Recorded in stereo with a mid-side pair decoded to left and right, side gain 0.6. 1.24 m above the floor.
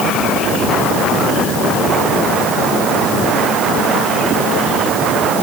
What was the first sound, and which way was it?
Only background noise.